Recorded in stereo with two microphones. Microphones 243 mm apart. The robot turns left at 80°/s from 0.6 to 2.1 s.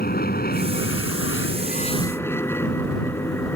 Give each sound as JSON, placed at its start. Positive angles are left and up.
{"t": 0.0, "sound": "an aircraft", "side_deg": 40}